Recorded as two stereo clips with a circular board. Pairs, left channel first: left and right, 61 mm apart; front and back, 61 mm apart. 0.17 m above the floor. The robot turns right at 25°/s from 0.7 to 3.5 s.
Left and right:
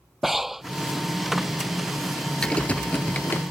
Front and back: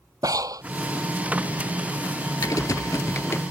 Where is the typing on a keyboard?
15° left; by 3.4 s 40° left.